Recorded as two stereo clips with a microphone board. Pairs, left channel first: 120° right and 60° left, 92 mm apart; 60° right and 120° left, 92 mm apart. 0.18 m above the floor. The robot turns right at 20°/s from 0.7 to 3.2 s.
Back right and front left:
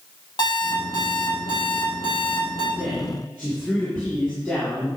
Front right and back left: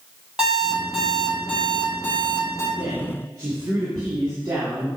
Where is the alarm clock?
160° right, 3 m; by 2.7 s 120° right, 3 m.